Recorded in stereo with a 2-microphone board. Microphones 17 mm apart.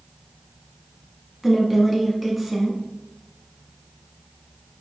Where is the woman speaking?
5° right (ahead or behind), 1.0 m.